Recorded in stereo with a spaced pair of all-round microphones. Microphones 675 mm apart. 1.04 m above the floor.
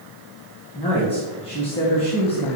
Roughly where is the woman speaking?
Centre.